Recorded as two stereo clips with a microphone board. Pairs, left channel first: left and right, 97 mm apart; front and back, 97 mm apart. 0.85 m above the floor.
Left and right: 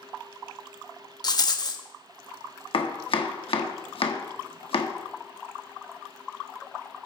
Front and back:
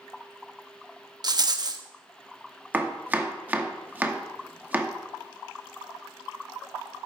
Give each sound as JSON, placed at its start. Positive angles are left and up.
{"t": 1.2, "sound": "a rattle", "azimuth_deg": 135, "distance_m": 0.7}
{"t": 2.7, "sound": "chopping", "azimuth_deg": 110, "distance_m": 0.9}